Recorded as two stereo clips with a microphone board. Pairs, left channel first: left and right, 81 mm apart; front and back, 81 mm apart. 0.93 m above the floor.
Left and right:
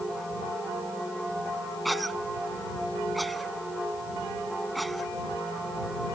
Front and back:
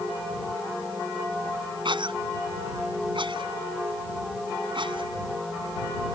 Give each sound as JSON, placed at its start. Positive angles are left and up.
{"t": 1.9, "sound": "a cough", "azimuth_deg": 180}